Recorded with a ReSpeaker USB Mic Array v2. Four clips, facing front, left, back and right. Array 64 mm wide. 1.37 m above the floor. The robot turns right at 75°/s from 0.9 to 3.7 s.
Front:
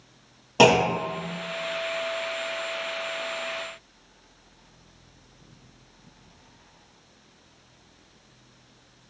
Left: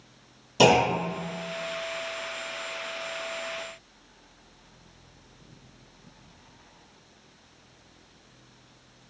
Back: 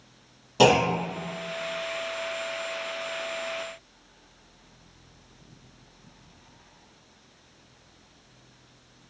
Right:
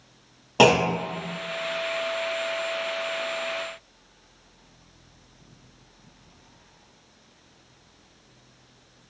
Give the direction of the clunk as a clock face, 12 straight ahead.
2 o'clock.